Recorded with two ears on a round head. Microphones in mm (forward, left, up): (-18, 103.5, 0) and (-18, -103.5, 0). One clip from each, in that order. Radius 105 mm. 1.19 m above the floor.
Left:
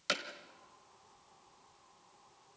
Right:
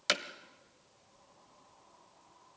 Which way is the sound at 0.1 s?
30° right (ahead or behind).